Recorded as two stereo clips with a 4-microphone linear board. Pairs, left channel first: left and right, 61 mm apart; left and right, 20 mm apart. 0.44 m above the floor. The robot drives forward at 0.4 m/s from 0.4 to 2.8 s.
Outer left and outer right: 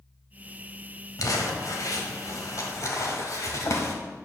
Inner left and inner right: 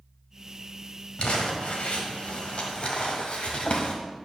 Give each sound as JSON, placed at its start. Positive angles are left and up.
{"t": 1.2, "sound": "crumpling", "side_deg": 70, "distance_m": 1.4}